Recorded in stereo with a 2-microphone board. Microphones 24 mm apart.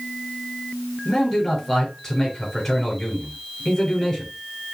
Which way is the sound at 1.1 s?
15° left (ahead or behind).